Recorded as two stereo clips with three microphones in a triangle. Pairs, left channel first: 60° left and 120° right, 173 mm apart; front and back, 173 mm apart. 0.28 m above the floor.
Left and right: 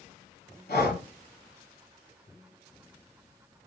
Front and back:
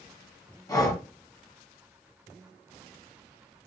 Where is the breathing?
70° left, 1.1 m.